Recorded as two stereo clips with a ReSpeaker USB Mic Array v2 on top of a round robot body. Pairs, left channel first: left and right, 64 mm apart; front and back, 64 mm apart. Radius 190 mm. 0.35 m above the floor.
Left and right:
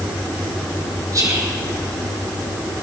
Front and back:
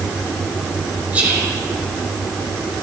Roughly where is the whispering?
Right.